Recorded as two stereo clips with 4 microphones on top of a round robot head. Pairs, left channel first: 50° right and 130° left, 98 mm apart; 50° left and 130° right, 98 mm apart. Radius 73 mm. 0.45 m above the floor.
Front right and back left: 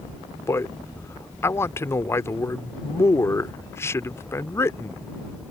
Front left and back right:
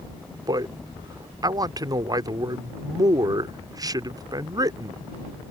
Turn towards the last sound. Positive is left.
turn(degrees=-100)